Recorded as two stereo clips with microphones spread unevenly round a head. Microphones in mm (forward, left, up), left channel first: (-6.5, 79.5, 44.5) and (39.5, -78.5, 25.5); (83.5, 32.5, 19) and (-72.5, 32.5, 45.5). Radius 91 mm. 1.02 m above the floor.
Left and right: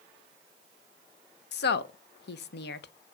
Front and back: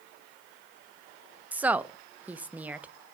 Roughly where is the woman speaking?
Left.